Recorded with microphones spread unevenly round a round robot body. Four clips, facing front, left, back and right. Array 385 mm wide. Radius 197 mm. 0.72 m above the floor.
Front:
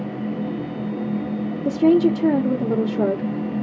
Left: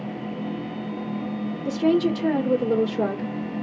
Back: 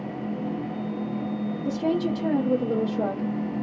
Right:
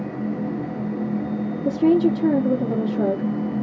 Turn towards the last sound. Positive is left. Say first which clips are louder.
# right 3 dB, front 10 dB
turn(degrees=-20)